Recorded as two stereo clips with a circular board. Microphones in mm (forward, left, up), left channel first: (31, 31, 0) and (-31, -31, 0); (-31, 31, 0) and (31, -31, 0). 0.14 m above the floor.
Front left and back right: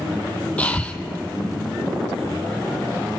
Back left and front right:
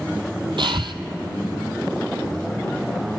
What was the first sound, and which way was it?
Breathing, 30° right.